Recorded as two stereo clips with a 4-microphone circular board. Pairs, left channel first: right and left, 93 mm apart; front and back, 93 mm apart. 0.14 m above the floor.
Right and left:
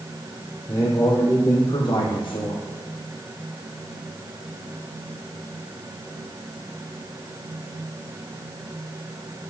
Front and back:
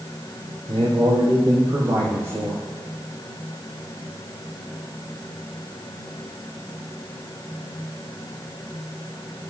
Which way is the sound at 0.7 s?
150° right.